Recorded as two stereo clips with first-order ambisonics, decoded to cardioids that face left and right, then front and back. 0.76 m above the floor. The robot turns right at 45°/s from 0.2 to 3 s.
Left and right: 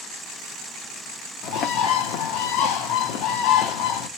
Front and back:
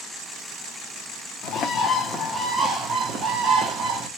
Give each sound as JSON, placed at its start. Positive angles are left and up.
{"t": 1.4, "sound": "a bird", "azimuth_deg": 50, "distance_m": 0.8}